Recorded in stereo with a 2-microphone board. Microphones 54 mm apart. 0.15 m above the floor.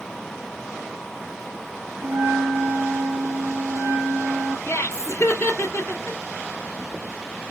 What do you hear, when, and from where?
2.0 s a bell: 50° right (ahead or behind), 1.8 m
4.7 s laughter: 35° left (ahead or behind), 1.5 m